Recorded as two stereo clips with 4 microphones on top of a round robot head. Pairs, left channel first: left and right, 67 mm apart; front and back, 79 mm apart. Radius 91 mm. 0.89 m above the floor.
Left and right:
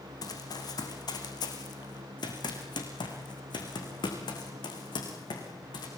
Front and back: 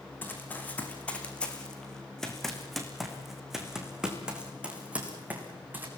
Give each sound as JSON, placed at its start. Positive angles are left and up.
{"t": 0.2, "sound": "running footsteps", "azimuth_deg": 65, "distance_m": 4.5}